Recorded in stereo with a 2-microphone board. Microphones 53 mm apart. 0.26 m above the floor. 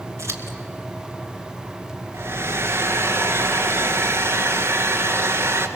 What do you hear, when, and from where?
0.2 s scissors: 55° right (ahead or behind), 2.5 m
2.1 s a hair dryer: 50° right (ahead or behind), 1.9 m